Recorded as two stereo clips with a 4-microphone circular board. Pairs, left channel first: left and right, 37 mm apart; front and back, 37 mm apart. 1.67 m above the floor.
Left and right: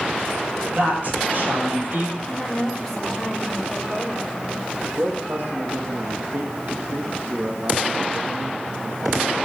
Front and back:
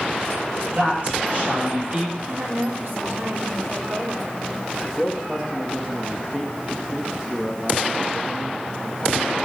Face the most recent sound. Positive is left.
turn(degrees=-105)